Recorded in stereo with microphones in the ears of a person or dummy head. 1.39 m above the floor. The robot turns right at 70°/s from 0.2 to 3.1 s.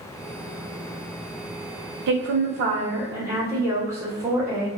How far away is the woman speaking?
About 0.9 m.